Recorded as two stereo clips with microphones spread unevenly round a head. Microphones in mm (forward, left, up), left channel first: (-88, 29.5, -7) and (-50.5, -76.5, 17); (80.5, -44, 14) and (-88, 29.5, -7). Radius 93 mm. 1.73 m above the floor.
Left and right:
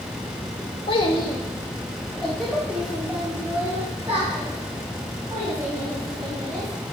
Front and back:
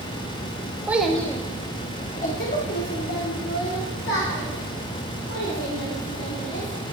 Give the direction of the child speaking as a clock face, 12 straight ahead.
10 o'clock.